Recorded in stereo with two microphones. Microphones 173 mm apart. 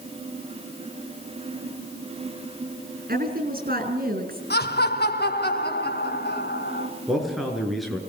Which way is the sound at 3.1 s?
55° right (ahead or behind).